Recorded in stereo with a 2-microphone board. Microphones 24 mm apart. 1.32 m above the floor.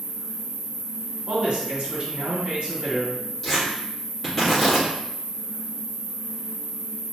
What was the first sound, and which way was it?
An insect, 5° right (ahead or behind).